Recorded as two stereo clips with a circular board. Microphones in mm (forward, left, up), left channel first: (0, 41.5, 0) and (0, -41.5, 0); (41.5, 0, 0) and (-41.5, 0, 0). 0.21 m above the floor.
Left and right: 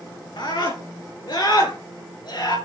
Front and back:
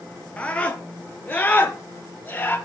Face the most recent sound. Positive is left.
turn(degrees=65)